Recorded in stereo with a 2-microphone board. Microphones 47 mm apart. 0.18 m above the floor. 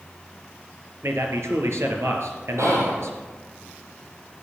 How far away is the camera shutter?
I don't hear a camera shutter.